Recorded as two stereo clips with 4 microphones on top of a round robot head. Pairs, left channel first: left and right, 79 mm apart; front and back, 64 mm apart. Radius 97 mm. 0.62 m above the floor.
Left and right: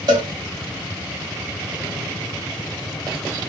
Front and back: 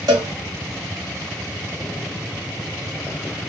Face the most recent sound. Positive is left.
turn(degrees=-135)